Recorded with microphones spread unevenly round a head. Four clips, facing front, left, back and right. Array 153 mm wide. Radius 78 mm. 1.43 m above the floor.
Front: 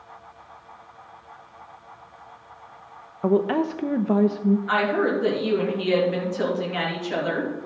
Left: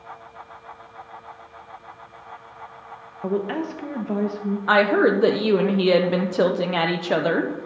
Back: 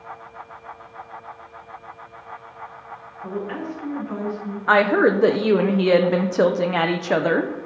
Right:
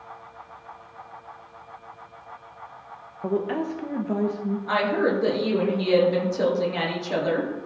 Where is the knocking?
I don't hear knocking.